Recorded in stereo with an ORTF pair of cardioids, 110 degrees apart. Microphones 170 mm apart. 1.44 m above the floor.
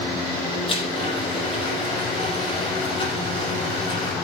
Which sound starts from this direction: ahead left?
A blender, at 0.7 s.